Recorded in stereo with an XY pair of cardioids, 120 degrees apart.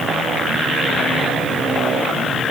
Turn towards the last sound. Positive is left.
No sound to turn to.